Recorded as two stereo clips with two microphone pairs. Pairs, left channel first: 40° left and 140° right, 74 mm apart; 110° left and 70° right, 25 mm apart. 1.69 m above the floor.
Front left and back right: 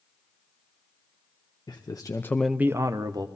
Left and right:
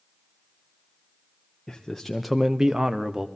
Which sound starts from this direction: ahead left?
A man speaking, at 1.7 s.